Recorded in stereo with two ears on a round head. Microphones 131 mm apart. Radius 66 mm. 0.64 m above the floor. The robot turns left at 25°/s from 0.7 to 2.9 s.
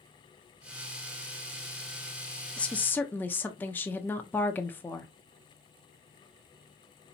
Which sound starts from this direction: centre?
A woman speaking, at 2.6 s.